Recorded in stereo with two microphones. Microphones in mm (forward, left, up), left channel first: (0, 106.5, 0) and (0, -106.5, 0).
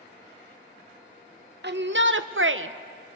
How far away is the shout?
About 1.0 m.